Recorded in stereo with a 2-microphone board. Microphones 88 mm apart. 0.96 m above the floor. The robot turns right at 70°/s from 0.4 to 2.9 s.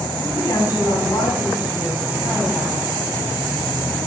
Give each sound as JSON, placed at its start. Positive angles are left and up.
{"t": 0.2, "sound": "a woman speaking", "azimuth_deg": 30, "distance_m": 6.0}